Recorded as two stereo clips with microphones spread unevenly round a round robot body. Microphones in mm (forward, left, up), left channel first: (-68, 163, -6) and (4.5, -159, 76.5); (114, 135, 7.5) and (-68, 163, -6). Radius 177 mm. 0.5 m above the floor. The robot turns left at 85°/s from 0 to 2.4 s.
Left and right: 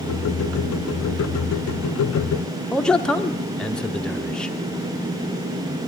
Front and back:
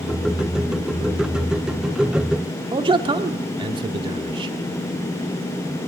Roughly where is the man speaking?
Behind.